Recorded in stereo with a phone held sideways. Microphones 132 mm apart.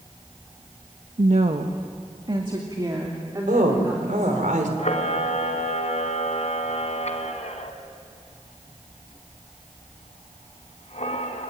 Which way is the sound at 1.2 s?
65° right (ahead or behind).